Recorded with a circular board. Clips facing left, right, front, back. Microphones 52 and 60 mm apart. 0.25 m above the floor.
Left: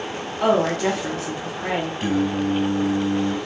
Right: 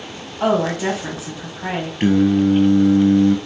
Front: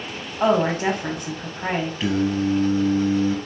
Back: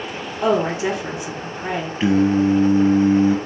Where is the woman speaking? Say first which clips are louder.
Right 1 dB, even; 15° right, 1.7 m.